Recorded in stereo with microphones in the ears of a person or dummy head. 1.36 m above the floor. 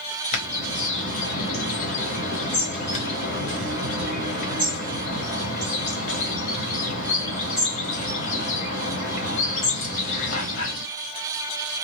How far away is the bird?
About 1.4 m.